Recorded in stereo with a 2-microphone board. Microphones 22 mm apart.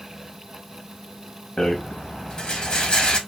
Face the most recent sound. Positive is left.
turn(degrees=50)  # may be behind; listen again after turning